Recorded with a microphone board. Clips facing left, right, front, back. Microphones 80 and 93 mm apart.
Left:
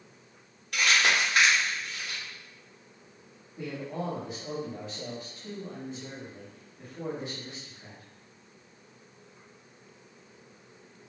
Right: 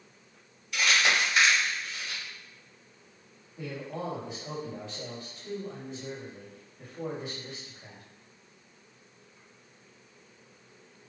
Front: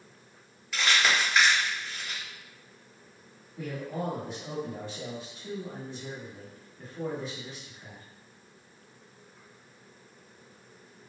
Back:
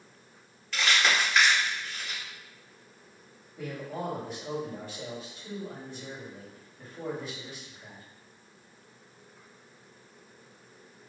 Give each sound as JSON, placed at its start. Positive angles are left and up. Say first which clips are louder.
{"t": 0.7, "sound": "crumpling", "louder": "left 1 dB, even", "azimuth_deg": 85, "distance_m": 1.2}
{"t": 3.6, "sound": "a man speaking", "louder": "left 2 dB, front 1 dB", "azimuth_deg": 45, "distance_m": 1.6}